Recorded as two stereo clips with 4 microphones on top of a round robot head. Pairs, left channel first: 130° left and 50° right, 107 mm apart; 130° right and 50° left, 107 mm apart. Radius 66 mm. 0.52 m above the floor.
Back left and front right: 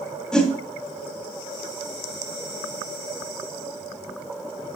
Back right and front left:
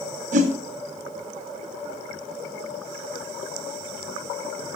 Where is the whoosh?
50° left, 1.8 m.